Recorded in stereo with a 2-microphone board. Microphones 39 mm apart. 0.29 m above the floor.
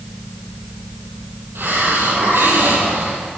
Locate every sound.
1.6 s a hiss: 75° right (ahead or behind), 5.5 m